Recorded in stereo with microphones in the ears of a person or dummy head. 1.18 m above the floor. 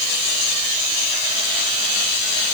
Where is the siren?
I don't hear a siren.